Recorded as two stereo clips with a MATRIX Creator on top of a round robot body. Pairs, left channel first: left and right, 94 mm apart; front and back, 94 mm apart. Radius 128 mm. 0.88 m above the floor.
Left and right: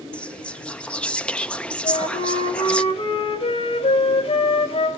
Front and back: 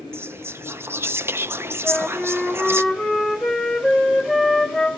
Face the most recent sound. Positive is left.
turn(degrees=100)